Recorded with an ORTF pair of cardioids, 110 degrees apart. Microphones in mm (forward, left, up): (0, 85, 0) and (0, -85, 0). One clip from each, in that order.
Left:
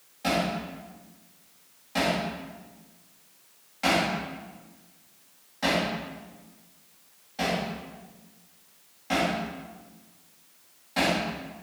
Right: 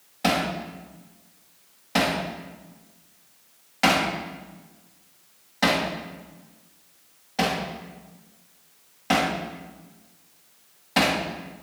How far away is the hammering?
About 2.5 m.